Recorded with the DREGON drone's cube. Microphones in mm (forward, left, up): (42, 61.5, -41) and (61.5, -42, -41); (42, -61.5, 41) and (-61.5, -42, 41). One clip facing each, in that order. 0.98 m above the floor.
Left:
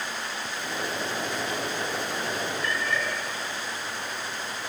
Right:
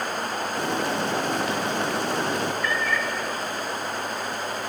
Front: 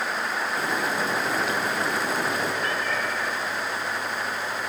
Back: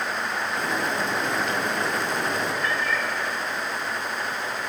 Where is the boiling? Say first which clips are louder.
Right 6 dB, even; 95° right, 3.5 m.